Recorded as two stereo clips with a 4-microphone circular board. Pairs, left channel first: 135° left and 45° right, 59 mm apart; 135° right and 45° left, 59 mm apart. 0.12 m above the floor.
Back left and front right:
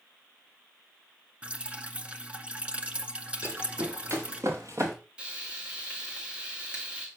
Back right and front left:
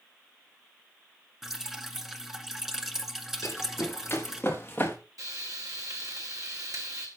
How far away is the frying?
About 4.5 m.